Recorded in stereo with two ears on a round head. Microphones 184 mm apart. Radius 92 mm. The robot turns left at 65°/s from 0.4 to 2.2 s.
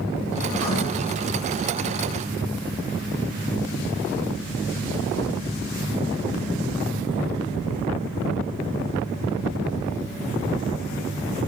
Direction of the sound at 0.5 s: 15° left (ahead or behind).